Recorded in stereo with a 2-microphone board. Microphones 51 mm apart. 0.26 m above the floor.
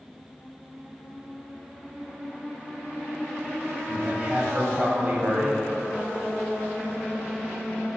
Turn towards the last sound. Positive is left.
turn(degrees=-30)  # may be behind; listen again after turning